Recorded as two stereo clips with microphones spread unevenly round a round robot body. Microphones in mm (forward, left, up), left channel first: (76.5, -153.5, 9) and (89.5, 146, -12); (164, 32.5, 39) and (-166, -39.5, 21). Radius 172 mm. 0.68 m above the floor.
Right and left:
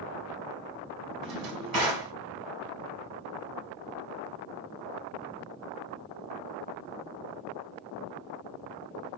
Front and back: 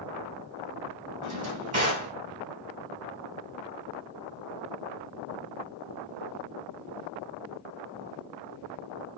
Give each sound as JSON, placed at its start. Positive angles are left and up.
{"t": 1.2, "sound": "a drawer", "azimuth_deg": 125, "distance_m": 2.0}